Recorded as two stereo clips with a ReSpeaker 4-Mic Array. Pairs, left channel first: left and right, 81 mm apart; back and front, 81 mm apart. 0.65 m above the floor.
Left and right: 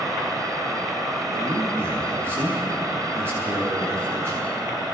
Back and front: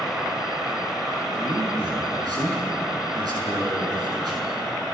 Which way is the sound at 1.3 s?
30° right.